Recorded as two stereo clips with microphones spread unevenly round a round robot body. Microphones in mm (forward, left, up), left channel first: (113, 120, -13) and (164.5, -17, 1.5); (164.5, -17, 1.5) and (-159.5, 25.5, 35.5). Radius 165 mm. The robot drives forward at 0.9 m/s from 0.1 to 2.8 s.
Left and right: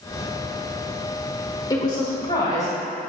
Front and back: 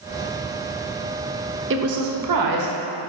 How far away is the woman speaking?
About 0.8 m.